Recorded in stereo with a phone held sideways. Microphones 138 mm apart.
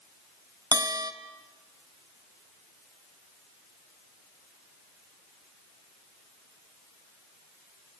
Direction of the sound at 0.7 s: 25° right (ahead or behind).